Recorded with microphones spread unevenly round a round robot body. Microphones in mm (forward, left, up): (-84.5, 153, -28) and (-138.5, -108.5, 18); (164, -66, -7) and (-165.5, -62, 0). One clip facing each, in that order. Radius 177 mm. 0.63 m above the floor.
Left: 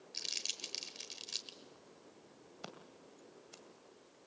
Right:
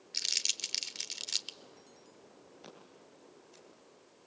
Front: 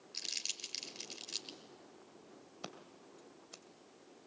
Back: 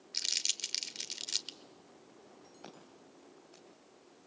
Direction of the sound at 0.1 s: 125° right.